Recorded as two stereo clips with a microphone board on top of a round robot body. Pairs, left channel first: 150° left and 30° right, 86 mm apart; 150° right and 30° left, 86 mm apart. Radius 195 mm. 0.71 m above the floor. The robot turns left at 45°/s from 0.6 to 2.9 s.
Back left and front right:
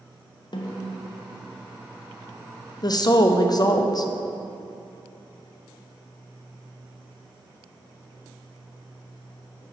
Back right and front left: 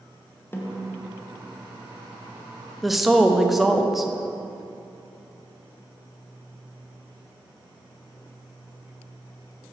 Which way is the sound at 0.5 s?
145° left.